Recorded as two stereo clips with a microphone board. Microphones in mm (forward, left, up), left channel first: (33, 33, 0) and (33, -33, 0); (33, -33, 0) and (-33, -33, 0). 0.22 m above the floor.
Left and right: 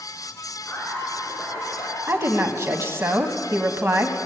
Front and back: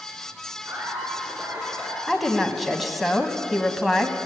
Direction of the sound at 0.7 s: 140° left.